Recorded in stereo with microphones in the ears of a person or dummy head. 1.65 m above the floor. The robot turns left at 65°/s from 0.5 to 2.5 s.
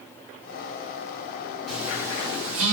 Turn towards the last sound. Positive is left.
turn(degrees=-50)